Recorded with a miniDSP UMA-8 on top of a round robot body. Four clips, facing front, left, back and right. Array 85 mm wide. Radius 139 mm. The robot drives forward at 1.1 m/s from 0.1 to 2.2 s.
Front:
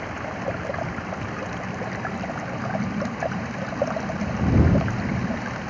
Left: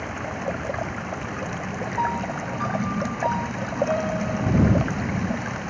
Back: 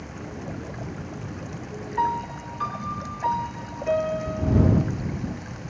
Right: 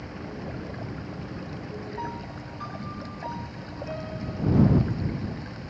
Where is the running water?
50° left.